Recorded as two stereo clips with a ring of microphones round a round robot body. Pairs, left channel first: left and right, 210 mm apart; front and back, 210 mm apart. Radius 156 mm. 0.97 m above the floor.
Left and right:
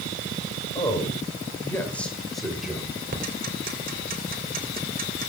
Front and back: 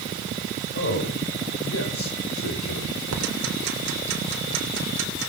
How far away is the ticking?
About 3 m.